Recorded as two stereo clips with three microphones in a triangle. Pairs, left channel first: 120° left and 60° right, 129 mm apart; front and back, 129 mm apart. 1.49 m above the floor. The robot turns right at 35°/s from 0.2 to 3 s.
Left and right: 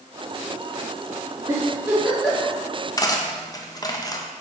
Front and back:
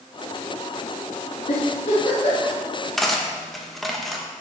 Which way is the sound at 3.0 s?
85° left.